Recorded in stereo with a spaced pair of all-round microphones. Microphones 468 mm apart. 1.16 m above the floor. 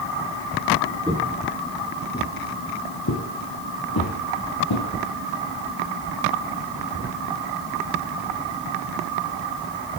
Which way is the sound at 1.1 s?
10° right (ahead or behind).